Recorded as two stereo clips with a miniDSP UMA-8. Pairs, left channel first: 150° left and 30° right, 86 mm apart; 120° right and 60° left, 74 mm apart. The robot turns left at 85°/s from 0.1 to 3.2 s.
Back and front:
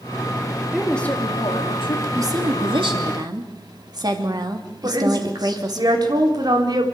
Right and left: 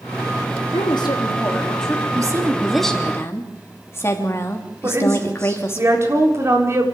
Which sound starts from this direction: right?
A woman speaking, at 0.7 s.